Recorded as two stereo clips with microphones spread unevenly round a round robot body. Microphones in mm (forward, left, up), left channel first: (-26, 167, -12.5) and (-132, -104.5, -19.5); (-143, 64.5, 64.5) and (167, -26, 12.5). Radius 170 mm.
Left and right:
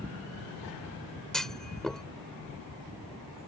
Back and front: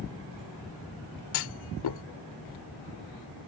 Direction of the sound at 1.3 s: 155° left.